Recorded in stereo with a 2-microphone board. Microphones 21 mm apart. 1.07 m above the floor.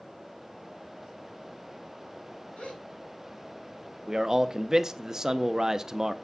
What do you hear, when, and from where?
2.6 s a gasp: 75° left (ahead or behind), 4.5 m
4.1 s a man speaking: 25° right (ahead or behind), 0.8 m